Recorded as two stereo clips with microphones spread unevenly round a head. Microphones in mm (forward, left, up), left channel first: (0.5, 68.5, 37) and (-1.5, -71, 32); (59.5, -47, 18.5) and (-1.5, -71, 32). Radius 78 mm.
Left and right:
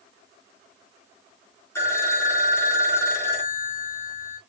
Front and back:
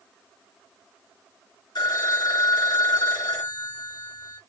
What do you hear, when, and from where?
1.8 s a phone ringing: 15° left, 1.6 m